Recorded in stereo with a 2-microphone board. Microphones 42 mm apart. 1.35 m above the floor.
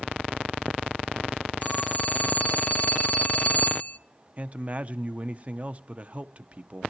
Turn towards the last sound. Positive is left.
turn(degrees=-35)  # may be behind; listen again after turning